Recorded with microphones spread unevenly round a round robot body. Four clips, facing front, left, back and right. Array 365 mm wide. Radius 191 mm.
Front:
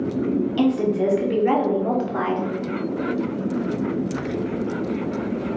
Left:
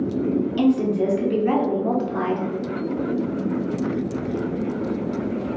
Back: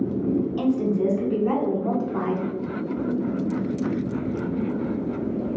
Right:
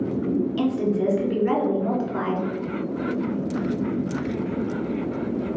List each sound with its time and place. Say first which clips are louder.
0.6 s a woman speaking: left 3 dB, front 5 dB; 10° left, 1.4 m